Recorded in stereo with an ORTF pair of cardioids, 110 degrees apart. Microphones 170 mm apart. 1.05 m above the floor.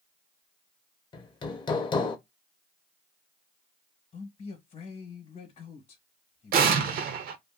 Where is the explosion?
60° right, 0.6 m.